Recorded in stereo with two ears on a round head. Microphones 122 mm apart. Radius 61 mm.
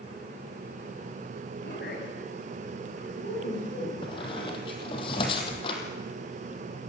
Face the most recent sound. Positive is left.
turn(degrees=40)  # may be behind; listen again after turning